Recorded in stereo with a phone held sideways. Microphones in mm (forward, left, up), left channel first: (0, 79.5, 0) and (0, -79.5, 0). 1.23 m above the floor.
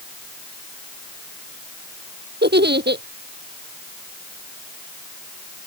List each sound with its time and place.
2.4 s a giggle: 80° right